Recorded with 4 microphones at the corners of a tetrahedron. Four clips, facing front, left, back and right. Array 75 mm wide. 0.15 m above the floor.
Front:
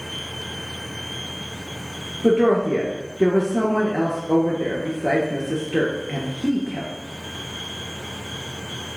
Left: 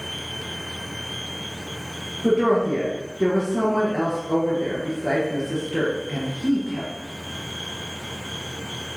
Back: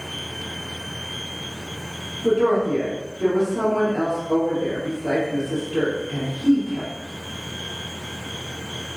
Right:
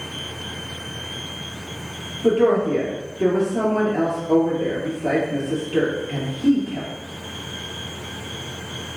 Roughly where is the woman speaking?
Ahead.